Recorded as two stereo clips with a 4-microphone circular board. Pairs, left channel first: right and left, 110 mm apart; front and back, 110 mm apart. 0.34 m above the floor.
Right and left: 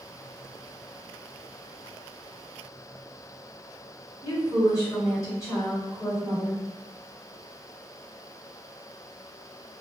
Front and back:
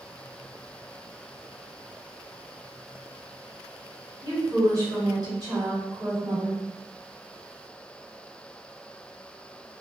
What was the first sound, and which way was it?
A woman speaking, 140° right.